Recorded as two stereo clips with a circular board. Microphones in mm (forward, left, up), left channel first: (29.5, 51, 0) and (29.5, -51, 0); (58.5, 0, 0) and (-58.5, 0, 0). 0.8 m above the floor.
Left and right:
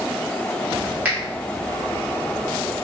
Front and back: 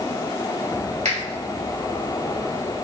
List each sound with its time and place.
1.1 s a finger snap: 165° right, 1.3 m